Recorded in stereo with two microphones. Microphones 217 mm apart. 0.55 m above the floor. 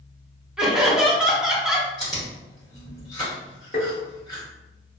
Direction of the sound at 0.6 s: 5° right (ahead or behind).